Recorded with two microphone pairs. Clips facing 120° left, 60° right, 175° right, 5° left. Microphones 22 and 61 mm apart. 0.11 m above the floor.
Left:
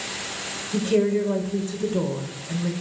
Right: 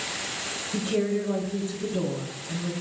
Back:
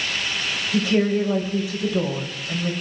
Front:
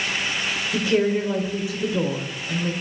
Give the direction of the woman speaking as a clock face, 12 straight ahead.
10 o'clock.